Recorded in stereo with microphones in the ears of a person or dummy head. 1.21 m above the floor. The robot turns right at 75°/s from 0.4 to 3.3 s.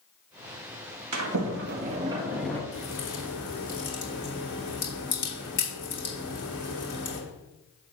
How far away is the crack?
About 3 m.